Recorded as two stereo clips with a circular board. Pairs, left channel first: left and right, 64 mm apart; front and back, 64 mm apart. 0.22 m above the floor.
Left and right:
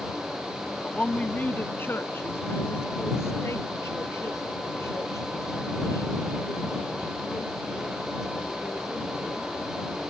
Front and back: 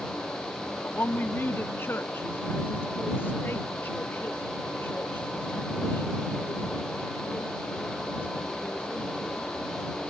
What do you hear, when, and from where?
0.8 s a woman speaking: 30° left; by 9.5 s 55° left